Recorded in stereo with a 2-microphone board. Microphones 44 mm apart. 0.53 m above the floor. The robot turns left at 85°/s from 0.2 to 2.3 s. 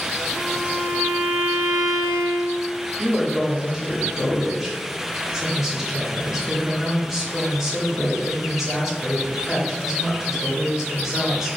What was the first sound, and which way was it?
A violin, 40° left.